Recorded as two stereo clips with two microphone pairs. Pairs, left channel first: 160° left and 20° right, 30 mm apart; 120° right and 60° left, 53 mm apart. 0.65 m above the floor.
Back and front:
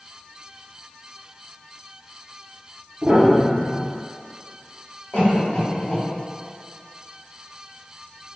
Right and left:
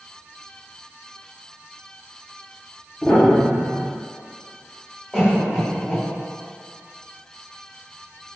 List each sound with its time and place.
3.0 s a piano: 35° right, 0.8 m
5.1 s a cough: 135° left, 1.7 m